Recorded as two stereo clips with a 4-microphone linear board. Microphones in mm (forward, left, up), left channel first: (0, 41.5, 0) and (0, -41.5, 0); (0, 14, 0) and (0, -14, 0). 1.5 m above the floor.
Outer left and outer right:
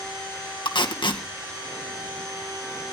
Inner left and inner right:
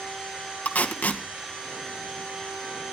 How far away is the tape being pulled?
About 1.9 m.